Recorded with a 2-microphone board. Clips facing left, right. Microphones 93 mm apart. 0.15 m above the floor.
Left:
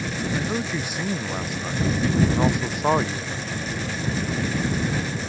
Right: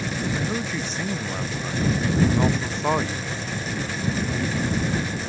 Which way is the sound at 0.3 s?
10° left (ahead or behind).